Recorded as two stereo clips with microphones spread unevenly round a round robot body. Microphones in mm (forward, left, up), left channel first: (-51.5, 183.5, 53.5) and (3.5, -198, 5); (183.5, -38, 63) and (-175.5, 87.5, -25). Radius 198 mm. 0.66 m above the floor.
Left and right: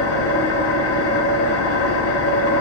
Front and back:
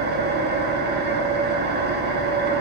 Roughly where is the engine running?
Behind left.